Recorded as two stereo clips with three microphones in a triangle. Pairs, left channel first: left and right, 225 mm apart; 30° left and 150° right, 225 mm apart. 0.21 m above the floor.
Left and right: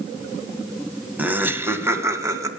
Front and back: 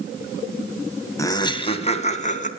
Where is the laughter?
20° right, 1.3 m; by 2.5 s 15° right, 2 m.